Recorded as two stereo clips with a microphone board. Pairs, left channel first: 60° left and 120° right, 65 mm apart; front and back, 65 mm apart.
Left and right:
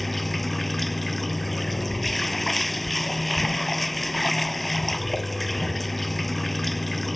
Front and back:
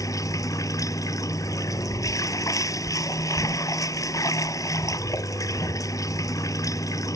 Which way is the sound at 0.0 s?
30° right.